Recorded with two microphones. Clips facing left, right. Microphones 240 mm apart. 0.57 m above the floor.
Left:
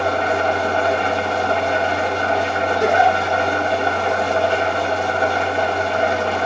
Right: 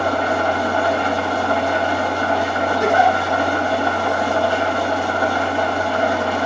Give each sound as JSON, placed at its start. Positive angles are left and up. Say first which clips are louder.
{"t": 0.0, "sound": "an engine running", "louder": "even", "side_deg": 25, "distance_m": 2.0}
{"t": 2.8, "sound": "a giggle", "louder": "even", "side_deg": 75, "distance_m": 5.5}